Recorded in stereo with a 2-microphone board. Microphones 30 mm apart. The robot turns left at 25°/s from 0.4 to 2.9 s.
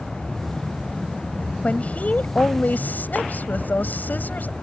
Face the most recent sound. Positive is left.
turn(degrees=100)